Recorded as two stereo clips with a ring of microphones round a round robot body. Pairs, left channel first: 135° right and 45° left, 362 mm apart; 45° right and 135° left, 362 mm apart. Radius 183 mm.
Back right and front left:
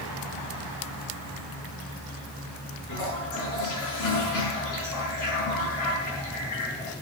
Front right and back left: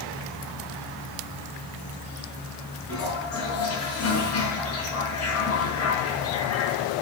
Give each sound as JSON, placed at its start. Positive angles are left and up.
{"t": 2.9, "sound": "a toilet flushing", "azimuth_deg": -95, "distance_m": 5.5}